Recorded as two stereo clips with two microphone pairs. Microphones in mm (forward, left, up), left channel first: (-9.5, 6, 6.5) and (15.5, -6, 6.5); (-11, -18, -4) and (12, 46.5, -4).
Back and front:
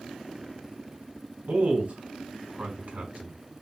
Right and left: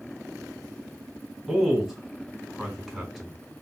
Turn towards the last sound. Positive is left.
turn(degrees=-20)